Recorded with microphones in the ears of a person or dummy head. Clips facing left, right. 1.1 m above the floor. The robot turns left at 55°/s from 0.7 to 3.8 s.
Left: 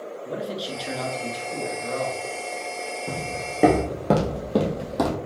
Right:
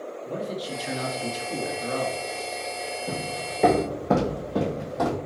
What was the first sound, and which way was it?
A man speaking, 5° left.